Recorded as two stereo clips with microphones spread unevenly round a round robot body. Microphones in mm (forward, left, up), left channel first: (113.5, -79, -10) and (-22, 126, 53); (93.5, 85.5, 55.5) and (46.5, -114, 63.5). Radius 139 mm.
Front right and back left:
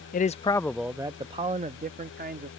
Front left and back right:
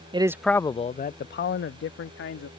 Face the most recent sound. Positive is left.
turn(degrees=65)